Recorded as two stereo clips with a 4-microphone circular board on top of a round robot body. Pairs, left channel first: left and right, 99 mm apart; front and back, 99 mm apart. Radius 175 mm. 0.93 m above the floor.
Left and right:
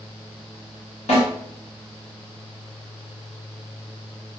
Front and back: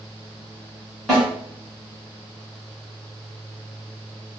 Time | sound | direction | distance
1.1 | a snare drum | 90° left | 1.7 m